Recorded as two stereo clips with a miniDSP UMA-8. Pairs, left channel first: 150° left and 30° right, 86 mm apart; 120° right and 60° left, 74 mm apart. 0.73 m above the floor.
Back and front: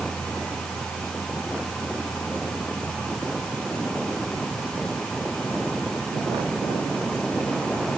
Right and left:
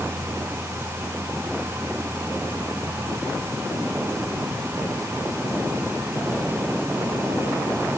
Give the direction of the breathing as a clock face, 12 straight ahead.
No breathing in this recording.